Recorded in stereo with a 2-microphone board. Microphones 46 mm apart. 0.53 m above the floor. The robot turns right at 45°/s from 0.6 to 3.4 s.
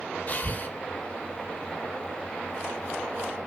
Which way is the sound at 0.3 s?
35° left (ahead or behind).